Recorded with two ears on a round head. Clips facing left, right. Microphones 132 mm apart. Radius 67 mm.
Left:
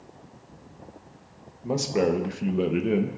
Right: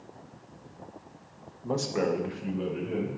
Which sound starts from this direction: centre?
A man speaking, at 1.6 s.